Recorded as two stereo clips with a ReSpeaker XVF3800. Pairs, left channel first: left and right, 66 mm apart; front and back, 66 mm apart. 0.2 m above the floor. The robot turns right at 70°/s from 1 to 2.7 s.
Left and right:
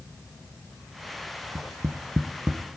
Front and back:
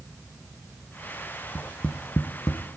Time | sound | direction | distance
1.6 | tapping | 90° right | 0.5 m